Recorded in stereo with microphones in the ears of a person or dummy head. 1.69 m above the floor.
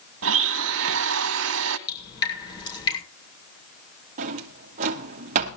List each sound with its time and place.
0.2 s a blender: 65° right (ahead or behind), 1.6 m
1.9 s dripping: 25° left (ahead or behind), 6 m
4.2 s a drawer: 40° right (ahead or behind), 1.2 m